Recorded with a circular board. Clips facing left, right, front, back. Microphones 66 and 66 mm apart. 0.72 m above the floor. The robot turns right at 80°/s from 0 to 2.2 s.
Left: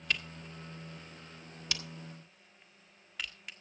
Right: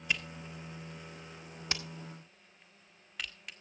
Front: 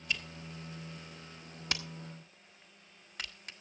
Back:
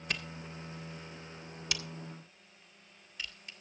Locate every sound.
0.1 s a camera shutter: 165° right, 1.5 m; by 3.5 s straight ahead, 1.5 m